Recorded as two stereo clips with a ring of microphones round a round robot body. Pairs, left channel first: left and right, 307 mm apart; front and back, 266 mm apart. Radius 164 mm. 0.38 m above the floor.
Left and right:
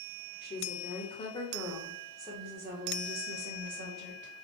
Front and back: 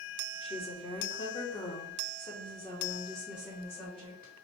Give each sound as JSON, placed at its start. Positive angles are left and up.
{"t": 0.4, "sound": "a woman speaking", "azimuth_deg": 55, "distance_m": 1.5}